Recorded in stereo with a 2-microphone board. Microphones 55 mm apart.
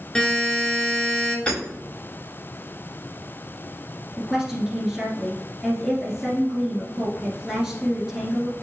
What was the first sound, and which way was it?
A buzzer, 5° left (ahead or behind).